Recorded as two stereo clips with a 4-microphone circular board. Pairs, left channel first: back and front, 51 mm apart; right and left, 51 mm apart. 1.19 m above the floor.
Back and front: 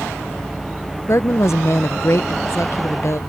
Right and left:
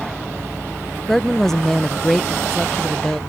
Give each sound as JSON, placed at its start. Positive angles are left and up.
{"t": 1.1, "sound": "a woman speaking", "azimuth_deg": -170}